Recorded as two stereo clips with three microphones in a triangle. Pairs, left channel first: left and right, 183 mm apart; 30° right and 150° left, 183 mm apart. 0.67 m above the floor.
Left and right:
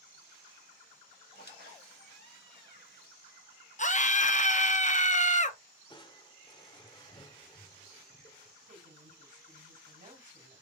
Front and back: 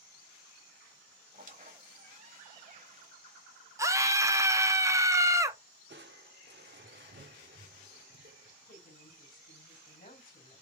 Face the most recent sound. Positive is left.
turn(degrees=-55)